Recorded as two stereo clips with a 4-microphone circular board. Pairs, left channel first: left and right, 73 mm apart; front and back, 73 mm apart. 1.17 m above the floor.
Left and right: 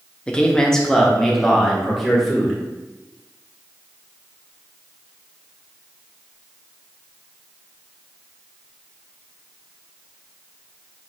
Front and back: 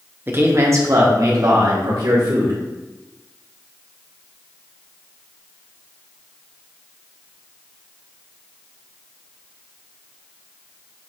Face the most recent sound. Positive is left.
turn(degrees=180)